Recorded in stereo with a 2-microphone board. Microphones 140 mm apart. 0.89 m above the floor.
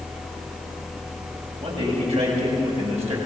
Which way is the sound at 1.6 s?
50° right (ahead or behind).